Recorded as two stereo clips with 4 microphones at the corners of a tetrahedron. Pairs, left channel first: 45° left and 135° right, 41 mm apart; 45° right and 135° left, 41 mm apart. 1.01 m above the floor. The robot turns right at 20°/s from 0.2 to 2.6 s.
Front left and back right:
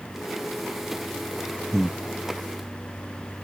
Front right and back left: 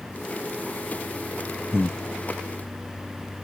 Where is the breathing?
35° right; by 2.0 s 30° right.